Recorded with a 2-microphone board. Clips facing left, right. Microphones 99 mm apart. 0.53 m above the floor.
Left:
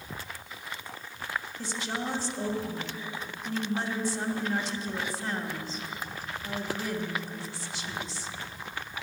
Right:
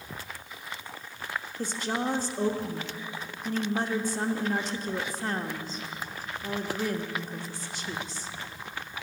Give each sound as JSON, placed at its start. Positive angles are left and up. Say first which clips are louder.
{"t": 1.6, "sound": "a woman speaking", "louder": "right 7 dB", "side_deg": -45, "distance_m": 1.0}